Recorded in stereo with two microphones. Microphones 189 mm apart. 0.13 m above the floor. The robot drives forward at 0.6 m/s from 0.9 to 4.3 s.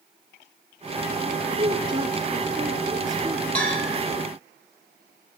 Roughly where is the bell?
Centre.